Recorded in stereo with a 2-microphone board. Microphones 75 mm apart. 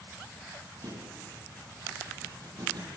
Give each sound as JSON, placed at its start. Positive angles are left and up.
{"t": 0.8, "sound": "a thud", "side_deg": -70, "distance_m": 10.0}